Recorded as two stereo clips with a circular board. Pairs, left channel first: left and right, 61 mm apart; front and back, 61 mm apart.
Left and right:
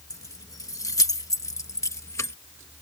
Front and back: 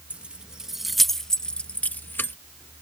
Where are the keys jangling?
115° left; by 2.4 s 55° left.